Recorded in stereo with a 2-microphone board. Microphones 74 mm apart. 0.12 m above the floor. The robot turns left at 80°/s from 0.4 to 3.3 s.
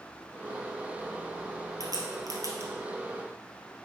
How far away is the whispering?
I don't hear whispering.